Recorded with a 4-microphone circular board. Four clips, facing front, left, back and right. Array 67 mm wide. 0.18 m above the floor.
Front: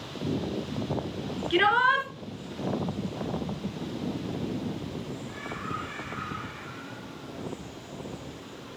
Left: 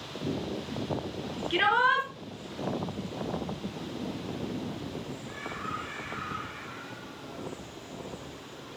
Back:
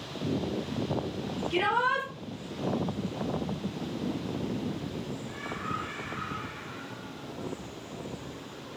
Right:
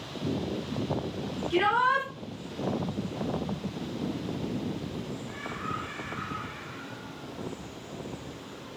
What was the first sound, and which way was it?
A shout, 20° left.